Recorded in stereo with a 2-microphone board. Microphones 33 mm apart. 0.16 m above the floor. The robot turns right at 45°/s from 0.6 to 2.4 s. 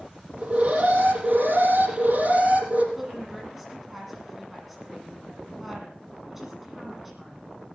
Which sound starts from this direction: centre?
A woman speaking, at 3.0 s.